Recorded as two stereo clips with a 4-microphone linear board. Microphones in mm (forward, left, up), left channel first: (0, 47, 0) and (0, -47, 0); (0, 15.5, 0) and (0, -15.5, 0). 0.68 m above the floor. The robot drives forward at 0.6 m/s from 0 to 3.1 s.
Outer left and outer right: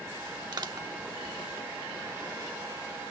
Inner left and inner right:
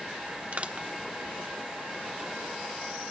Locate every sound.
0.5 s crushing: 50° right (ahead or behind), 1.0 m; by 0.9 s 40° right (ahead or behind), 1.1 m